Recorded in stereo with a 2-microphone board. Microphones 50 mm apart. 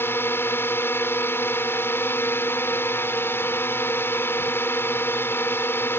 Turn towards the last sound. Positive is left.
turn(degrees=50)  # may be behind; listen again after turning